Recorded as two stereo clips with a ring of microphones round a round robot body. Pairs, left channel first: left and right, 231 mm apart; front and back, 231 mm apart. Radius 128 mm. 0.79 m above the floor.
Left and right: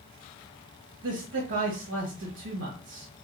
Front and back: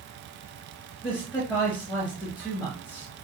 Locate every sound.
1.0 s a man speaking: 70° right, 1.0 m